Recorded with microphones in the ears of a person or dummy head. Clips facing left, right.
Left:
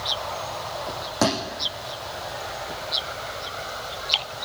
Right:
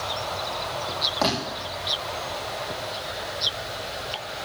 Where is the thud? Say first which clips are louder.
Left 3 dB; 30° left (ahead or behind), 10 m.